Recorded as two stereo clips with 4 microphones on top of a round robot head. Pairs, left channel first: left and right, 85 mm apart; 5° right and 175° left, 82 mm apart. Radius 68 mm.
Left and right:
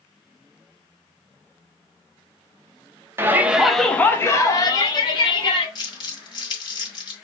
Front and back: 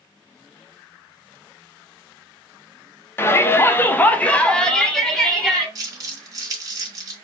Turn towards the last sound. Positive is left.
turn(degrees=125)